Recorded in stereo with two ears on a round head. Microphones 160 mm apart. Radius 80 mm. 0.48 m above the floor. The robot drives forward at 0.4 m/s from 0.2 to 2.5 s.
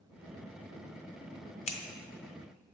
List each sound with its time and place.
1.7 s scissors: 35° left (ahead or behind), 0.6 m; by 1.8 s 40° left (ahead or behind), 0.5 m